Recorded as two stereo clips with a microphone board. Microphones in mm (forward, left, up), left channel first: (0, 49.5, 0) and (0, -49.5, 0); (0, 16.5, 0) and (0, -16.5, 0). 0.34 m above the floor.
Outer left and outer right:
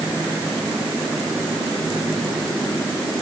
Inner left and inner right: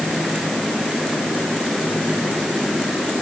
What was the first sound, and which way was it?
Only background noise.